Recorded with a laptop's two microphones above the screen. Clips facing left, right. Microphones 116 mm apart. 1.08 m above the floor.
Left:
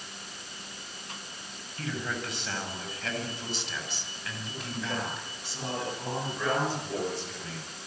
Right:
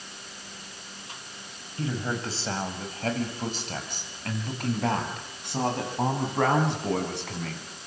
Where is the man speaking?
25° right (ahead or behind), 8 m; by 7.7 s 70° right (ahead or behind), 12 m.